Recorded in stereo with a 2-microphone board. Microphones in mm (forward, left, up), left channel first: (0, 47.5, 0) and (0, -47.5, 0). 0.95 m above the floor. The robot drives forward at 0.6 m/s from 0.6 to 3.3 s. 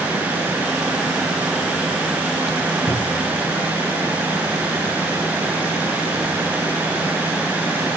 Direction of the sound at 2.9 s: 55° left (ahead or behind).